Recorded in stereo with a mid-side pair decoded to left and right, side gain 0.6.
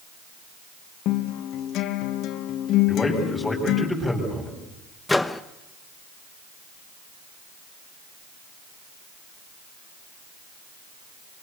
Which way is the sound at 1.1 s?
65° left.